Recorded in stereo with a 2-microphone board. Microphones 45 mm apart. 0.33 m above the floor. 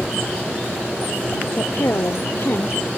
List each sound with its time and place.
1.6 s a woman speaking: 65° left (ahead or behind)